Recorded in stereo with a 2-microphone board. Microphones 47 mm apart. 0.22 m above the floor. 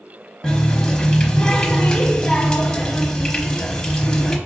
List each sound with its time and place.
0.4 s a running tap: 15° left (ahead or behind), 0.9 m